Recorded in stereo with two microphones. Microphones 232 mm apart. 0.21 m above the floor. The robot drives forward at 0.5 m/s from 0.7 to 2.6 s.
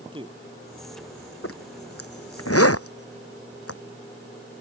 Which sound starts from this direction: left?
A zipper, at 1.4 s.